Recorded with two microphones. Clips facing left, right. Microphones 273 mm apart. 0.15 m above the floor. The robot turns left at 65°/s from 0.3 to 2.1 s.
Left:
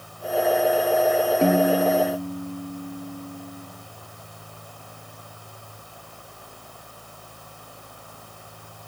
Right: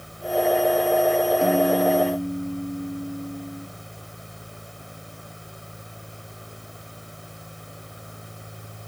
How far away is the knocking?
No knocking in this recording.